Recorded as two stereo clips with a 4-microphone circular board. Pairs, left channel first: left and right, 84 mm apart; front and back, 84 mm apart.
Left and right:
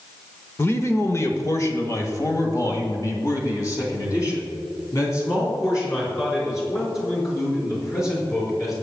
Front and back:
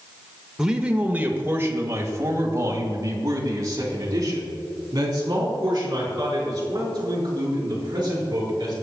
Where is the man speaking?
105° left, 1.1 m; by 8.7 s 140° left, 6 m.